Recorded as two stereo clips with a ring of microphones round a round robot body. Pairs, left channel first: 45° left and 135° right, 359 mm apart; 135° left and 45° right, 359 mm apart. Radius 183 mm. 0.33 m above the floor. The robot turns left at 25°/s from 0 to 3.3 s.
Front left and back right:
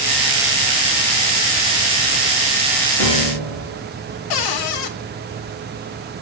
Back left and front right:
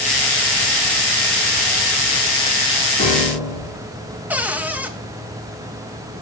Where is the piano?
60° left, 6.5 m; by 3.9 s 55° left, 6.5 m.